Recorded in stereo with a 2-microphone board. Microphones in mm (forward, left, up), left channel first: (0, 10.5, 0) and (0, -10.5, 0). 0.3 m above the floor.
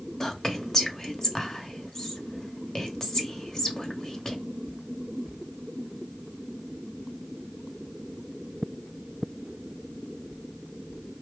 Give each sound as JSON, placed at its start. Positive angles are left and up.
{"t": 0.2, "sound": "whispering", "side_deg": 25, "distance_m": 0.9}